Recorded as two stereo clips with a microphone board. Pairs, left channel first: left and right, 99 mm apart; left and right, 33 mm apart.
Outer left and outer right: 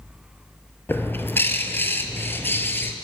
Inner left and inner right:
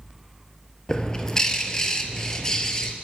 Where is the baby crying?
I don't hear a baby crying.